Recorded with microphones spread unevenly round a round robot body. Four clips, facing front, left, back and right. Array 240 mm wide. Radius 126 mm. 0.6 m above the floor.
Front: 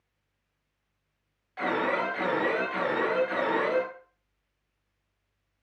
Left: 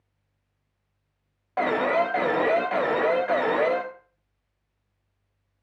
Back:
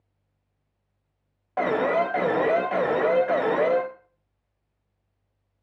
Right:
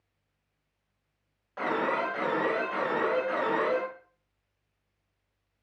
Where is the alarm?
145° left, 1.9 m.